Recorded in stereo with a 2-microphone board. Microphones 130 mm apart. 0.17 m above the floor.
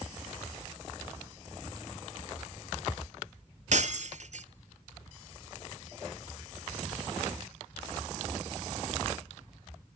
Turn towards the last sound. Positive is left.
turn(degrees=-60)  # may be behind; listen again after turning